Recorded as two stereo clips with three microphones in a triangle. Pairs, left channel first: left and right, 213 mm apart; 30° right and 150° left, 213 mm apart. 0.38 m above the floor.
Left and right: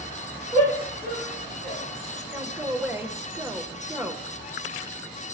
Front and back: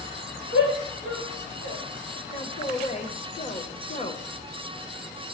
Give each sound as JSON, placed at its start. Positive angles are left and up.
{"t": 0.5, "sound": "a shout", "azimuth_deg": -40, "distance_m": 4.5}
{"t": 2.3, "sound": "a man speaking", "azimuth_deg": -20, "distance_m": 1.0}